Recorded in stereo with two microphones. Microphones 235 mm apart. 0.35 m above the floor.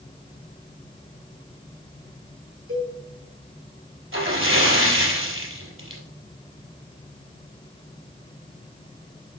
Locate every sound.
2.7 s a cowbell: 70° right (ahead or behind), 4.5 m
4.1 s a splash: 65° right (ahead or behind), 3.5 m